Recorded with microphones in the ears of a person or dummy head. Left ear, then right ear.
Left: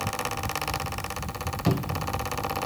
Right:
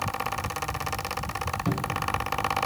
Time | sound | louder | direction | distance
1.7 | a cupboard door | left 1 dB | 35° left (ahead or behind) | 1.2 m